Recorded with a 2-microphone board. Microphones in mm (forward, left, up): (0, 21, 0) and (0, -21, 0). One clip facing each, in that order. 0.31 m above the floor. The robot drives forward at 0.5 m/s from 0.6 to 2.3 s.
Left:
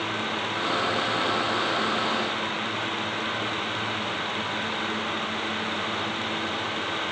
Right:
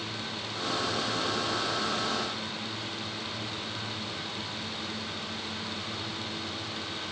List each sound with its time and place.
Only background noise.